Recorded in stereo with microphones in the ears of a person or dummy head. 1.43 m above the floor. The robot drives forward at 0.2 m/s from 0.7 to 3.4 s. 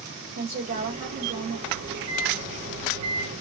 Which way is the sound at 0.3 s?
45° right (ahead or behind).